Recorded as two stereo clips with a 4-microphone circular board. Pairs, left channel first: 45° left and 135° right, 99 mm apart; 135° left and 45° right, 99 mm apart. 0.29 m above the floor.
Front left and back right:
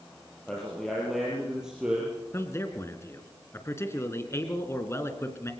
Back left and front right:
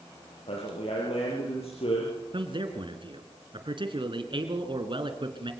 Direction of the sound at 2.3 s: 15° right.